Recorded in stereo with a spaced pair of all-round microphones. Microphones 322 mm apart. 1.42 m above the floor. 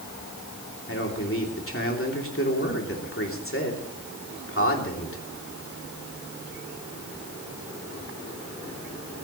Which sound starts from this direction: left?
A man speaking, at 0.9 s.